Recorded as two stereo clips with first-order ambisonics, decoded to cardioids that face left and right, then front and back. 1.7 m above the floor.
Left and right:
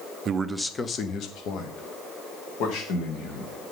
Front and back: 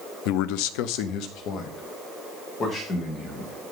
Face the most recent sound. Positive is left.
turn(degrees=65)